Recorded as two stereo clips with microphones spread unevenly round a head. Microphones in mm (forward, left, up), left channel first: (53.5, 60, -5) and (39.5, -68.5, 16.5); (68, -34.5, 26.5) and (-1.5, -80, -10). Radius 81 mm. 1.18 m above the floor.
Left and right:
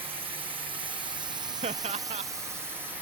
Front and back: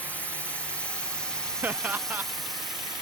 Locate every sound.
0.0 s a drone: 60° right; by 3.0 s straight behind
1.6 s laughter: 135° right